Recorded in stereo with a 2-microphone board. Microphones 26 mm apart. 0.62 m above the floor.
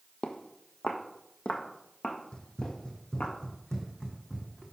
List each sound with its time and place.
0.2 s footsteps: 60° left (ahead or behind), 1.1 m; by 3.3 s 70° left (ahead or behind), 2.5 m
2.3 s running footsteps: 35° left (ahead or behind), 1.3 m; by 4.6 s 25° left (ahead or behind), 2.5 m